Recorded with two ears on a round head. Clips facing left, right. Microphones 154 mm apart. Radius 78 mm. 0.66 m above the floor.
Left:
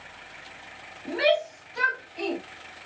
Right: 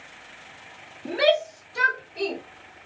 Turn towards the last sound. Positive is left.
turn(degrees=-60)  # may be behind; listen again after turning